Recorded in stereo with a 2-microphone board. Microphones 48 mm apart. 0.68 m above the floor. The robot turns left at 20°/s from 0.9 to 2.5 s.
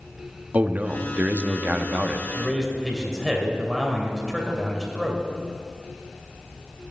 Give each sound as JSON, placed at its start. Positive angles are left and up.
{"t": 0.5, "sound": "a man speaking", "side_deg": -35, "distance_m": 0.8}
{"t": 2.3, "sound": "a man speaking", "side_deg": 0, "distance_m": 2.5}